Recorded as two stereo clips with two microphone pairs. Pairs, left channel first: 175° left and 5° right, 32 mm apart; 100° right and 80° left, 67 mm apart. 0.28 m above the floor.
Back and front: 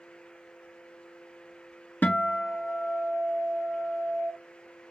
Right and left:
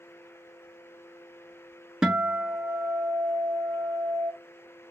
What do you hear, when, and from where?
2.0 s a guitar: 155° left, 1.1 m